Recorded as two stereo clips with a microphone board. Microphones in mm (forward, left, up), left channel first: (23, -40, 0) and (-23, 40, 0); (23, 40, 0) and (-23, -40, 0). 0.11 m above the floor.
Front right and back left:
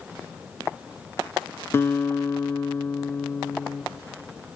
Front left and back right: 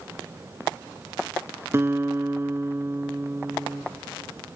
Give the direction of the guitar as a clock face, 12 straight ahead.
3 o'clock.